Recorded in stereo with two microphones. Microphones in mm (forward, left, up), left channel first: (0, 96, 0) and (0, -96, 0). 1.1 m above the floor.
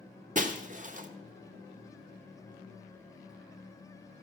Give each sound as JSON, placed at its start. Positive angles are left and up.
{"t": 0.3, "sound": "breaking glass", "side_deg": -45, "distance_m": 0.9}